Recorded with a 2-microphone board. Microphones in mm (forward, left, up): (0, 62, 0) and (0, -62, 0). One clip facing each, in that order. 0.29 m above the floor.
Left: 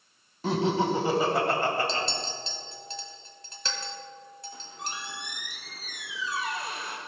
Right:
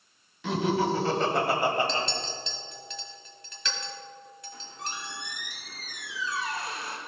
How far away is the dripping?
I don't hear dripping.